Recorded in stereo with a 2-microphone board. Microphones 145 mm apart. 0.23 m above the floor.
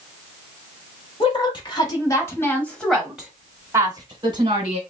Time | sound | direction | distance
1.2 | a woman speaking | 40° left (ahead or behind) | 1.4 m